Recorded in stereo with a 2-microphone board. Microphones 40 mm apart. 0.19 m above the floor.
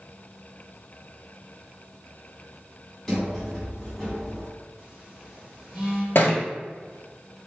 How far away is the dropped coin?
I don't hear a dropped coin.